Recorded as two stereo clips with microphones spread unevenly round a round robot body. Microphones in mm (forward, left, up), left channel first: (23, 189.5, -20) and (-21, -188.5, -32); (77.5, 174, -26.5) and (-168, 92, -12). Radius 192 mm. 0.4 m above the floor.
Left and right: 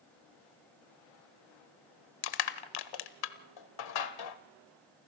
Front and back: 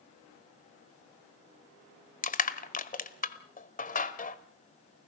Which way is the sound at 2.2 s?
70° left.